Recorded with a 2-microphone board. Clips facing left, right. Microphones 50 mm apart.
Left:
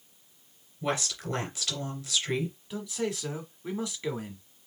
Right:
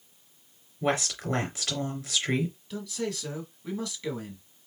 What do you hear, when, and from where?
0.8 s a woman speaking: 40° right (ahead or behind), 3 m
2.7 s a man speaking: 20° left (ahead or behind), 1.6 m